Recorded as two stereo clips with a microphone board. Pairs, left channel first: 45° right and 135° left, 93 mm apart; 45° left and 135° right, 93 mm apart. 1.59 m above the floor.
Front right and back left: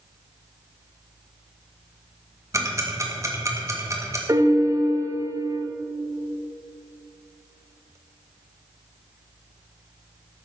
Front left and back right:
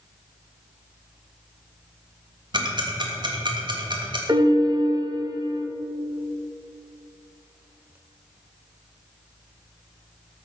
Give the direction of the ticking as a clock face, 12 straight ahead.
6 o'clock.